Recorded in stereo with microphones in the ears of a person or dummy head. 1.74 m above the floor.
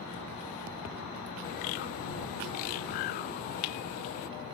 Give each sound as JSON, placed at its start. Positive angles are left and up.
{"t": 1.4, "sound": "a bird", "side_deg": 45}